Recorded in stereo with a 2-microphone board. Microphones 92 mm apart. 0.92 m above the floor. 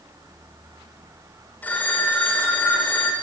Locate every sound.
1.6 s a phone ringing: 20° left (ahead or behind), 2 m